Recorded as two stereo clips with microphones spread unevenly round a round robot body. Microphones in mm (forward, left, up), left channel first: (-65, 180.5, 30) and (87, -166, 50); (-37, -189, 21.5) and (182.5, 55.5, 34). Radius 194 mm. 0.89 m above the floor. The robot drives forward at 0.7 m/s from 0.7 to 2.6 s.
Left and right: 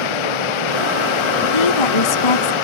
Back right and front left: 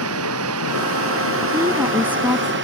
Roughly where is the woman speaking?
Behind left.